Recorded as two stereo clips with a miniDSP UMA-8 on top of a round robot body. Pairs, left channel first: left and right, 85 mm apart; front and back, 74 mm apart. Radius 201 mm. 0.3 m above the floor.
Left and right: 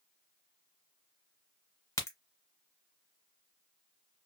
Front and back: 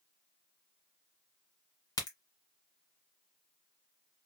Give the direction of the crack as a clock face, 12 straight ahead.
11 o'clock.